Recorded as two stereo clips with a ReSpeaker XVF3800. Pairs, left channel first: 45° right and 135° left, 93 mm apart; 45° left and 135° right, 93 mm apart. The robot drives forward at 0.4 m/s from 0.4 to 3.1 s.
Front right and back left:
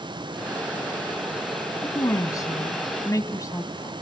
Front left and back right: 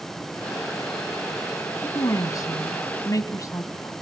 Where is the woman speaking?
Straight ahead, 2.5 m.